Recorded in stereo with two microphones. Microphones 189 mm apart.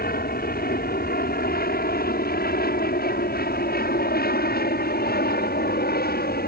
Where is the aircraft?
55° left (ahead or behind).